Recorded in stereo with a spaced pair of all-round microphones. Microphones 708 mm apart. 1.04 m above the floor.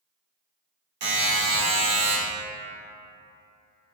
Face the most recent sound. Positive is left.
turn(degrees=-65)  # may be behind; listen again after turning